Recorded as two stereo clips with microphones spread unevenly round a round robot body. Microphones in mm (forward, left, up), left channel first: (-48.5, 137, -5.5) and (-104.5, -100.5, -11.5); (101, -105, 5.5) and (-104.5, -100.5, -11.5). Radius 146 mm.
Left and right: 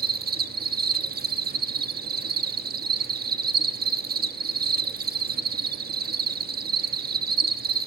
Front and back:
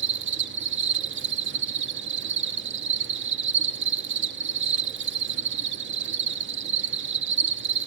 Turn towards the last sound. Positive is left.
turn(degrees=-155)